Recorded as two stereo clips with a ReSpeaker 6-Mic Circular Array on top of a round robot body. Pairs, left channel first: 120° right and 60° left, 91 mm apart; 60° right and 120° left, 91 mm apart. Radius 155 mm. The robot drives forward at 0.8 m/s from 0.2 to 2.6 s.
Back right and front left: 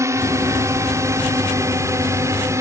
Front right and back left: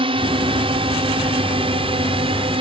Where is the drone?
115° left.